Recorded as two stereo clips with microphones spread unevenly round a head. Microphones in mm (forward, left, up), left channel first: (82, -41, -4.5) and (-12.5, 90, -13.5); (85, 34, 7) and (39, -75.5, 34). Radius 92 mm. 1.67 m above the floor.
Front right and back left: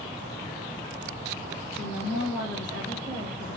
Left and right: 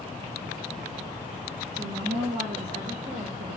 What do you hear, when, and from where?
1.7 s a woman speaking: 125° right, 2.5 m